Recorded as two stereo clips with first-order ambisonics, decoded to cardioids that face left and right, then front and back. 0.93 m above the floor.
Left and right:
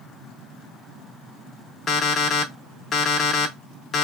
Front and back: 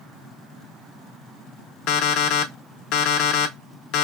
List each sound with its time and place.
1.9 s an alarm clock: 25° left, 0.8 m